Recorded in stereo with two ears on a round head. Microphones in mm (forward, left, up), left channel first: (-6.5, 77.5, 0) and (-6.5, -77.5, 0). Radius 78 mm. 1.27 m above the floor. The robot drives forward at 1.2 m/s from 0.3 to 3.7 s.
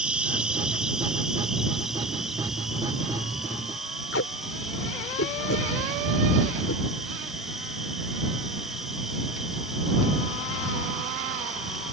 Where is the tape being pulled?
85° left.